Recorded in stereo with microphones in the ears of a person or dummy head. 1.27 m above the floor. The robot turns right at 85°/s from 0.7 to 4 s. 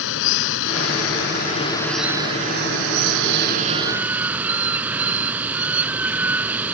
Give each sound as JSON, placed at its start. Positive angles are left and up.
{"t": 0.0, "sound": "running water", "azimuth_deg": 70}